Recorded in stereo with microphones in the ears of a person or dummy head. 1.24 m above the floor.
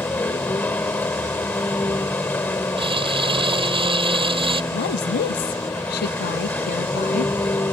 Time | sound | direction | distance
0.0 | a vehicle | 10° left (ahead or behind) | ?
2.8 | crumpling | 25° right (ahead or behind) | ?
4.7 | a woman speaking | 55° left (ahead or behind) | ?